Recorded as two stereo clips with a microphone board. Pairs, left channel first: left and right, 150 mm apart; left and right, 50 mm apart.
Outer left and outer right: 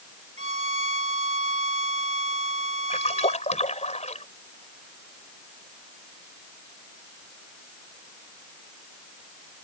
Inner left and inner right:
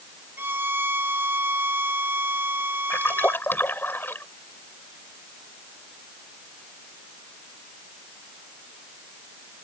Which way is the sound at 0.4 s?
50° right (ahead or behind).